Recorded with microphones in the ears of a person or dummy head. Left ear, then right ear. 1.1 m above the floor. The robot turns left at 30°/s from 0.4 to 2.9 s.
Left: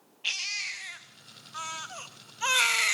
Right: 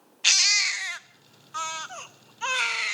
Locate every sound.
0.2 s a baby crying: 130° right, 0.8 m; by 3.0 s 155° left, 0.8 m